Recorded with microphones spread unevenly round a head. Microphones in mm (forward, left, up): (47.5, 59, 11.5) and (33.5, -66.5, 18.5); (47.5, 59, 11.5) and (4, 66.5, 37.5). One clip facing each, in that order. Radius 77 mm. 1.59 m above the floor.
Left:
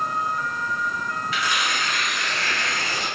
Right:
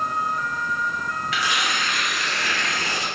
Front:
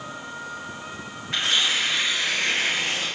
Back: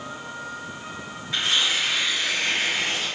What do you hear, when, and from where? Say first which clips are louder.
1.3 s tearing paper: right 1 dB, even; 80° right, 1.3 m